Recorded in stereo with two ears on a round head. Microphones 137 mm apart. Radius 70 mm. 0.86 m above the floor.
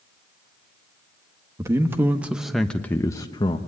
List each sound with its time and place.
1.6 s a man speaking: 20° right (ahead or behind), 1.5 m; by 3.6 s 30° left (ahead or behind), 1.1 m